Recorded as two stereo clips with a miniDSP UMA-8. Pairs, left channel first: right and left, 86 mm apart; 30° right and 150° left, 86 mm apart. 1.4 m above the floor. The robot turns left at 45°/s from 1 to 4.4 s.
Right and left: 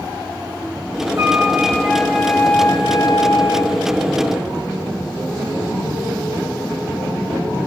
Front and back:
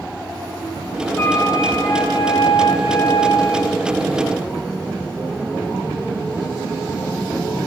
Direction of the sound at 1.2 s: 45° left.